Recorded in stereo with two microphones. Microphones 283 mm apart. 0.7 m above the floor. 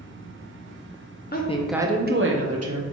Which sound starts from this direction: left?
A woman speaking, at 1.3 s.